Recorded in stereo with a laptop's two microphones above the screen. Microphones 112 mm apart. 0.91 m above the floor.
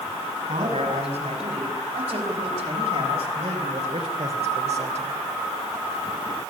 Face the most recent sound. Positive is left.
turn(degrees=-75)  # may be behind; listen again after turning